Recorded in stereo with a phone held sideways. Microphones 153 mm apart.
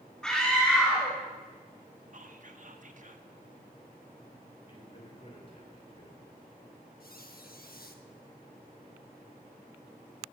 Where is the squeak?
70° left (ahead or behind), 1.1 m.